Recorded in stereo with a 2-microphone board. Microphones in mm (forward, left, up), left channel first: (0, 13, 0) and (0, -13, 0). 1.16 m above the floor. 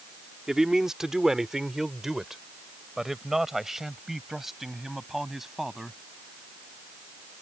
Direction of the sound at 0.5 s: 25° right (ahead or behind).